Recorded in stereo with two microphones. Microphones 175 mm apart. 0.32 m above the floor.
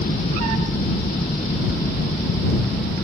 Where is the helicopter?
65° left (ahead or behind).